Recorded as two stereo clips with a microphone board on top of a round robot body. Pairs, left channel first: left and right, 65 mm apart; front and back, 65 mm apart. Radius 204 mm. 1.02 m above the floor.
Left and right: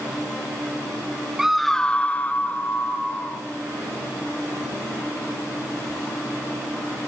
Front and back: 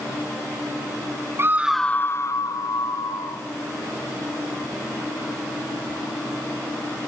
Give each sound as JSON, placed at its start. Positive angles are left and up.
{"t": 1.4, "sound": "a scream", "azimuth_deg": -170, "distance_m": 0.9}